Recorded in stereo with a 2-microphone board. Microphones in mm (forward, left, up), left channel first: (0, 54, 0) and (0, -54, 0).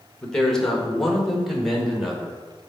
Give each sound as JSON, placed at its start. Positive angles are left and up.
{"t": 0.2, "sound": "a man speaking", "side_deg": 5, "distance_m": 1.4}